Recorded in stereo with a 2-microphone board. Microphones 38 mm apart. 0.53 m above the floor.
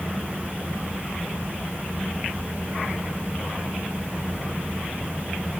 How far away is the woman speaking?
No woman speaking in this recording.